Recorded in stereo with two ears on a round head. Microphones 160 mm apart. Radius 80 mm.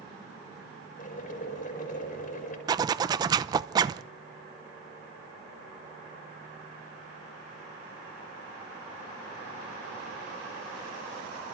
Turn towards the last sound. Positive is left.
turn(degrees=-25)  # may be behind; listen again after turning